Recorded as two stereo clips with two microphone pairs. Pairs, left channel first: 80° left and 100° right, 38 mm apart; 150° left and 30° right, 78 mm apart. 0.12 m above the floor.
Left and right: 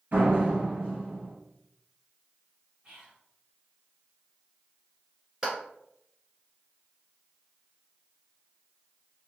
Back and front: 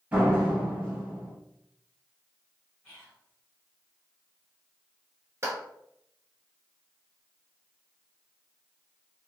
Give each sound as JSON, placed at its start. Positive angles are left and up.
{"t": 0.1, "sound": "a door slam", "azimuth_deg": -95, "distance_m": 1.8}
{"t": 2.8, "sound": "whispering", "azimuth_deg": -140, "distance_m": 1.6}
{"t": 5.4, "sound": "a clap", "azimuth_deg": -35, "distance_m": 1.3}